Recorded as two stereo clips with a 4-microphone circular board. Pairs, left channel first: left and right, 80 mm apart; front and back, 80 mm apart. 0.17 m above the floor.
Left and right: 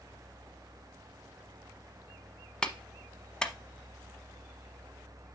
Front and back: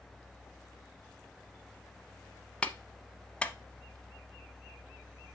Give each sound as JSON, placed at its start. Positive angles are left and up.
{"t": 2.6, "sound": "a clap", "azimuth_deg": 35, "distance_m": 0.8}